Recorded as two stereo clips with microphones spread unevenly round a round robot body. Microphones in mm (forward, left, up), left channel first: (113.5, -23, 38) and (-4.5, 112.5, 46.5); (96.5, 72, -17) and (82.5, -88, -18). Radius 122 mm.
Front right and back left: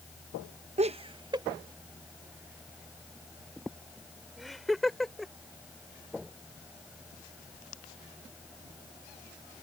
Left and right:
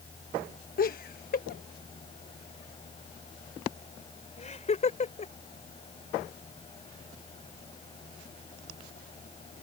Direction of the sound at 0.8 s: 85° left.